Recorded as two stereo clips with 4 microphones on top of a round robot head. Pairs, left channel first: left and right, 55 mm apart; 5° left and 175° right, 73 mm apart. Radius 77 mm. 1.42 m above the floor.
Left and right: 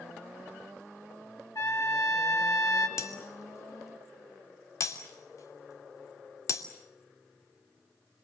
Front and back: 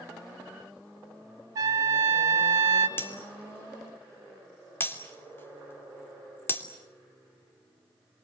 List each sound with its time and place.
1.6 s a trumpet: 145° left, 1.9 m
3.0 s breaking glass: 65° left, 3 m